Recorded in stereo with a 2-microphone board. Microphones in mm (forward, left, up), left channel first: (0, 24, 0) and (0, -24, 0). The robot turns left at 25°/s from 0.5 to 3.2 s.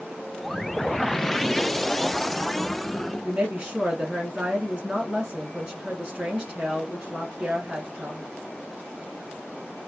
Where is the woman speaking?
15° right (ahead or behind), 1.2 m.